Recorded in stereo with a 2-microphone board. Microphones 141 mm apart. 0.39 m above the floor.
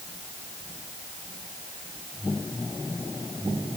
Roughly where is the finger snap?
No finger snap in this recording.